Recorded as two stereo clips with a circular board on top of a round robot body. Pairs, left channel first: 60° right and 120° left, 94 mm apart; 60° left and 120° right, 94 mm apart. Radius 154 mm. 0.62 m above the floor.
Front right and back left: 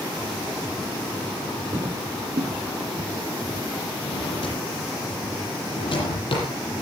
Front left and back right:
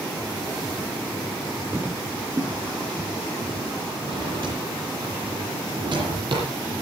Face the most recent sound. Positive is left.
turn(degrees=-85)